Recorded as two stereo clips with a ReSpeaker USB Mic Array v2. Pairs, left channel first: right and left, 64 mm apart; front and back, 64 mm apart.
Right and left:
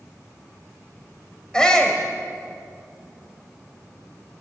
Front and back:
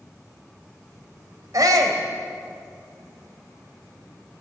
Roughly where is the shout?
Behind.